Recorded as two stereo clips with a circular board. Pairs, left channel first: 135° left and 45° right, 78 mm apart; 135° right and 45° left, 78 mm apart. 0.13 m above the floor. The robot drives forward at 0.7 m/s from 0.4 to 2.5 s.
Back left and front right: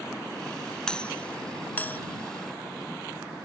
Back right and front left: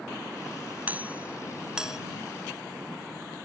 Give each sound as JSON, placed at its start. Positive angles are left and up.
{"t": 0.9, "sound": "a doorbell", "azimuth_deg": 70}